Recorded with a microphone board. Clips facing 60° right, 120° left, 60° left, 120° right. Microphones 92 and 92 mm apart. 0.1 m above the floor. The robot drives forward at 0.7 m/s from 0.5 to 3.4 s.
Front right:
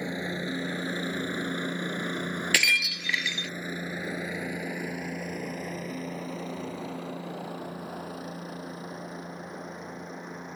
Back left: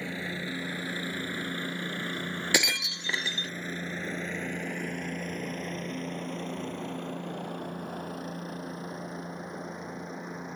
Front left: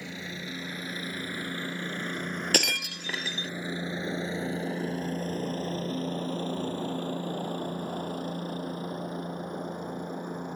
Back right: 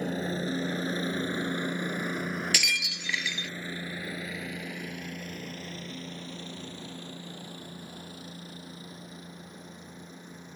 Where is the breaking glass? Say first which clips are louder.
Back left 2 dB, front left 4 dB; 55° left; by 3.5 s 90° left.